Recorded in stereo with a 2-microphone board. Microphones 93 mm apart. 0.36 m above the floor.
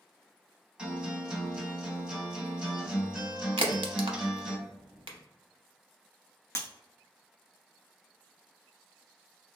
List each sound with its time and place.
0.8 s a guitar: 10° right (ahead or behind), 1.4 m
3.6 s a crack: 75° right (ahead or behind), 0.6 m
6.5 s breaking glass: 35° left (ahead or behind), 0.5 m